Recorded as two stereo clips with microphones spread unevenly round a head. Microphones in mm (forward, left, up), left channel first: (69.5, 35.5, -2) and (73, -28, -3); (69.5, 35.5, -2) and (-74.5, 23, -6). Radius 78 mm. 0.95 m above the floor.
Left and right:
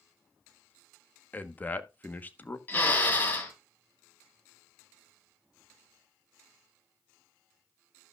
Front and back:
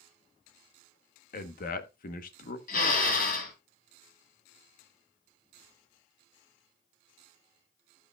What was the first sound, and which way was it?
A man speaking, 30° left.